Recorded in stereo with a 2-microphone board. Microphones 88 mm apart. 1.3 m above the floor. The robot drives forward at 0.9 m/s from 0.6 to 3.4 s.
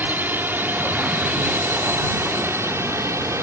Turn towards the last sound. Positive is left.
turn(degrees=-35)  # may be behind; listen again after turning